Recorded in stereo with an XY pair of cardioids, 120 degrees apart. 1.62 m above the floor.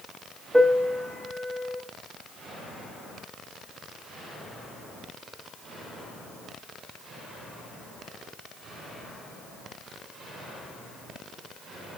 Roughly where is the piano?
Ahead.